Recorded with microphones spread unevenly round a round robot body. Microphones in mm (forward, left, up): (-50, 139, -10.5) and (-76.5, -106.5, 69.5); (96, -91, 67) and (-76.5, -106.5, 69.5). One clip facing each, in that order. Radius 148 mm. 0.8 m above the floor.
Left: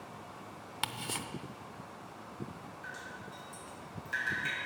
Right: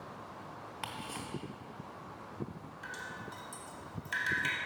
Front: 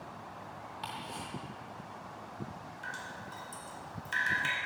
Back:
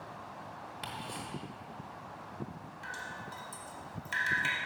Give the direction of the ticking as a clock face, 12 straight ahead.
8 o'clock.